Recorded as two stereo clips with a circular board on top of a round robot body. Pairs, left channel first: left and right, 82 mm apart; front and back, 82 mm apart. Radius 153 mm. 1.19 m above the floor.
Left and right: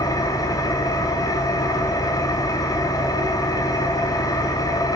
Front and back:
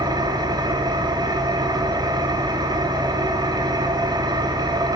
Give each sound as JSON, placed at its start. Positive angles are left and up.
{"t": 0.0, "sound": "an engine running", "azimuth_deg": 140, "distance_m": 3.0}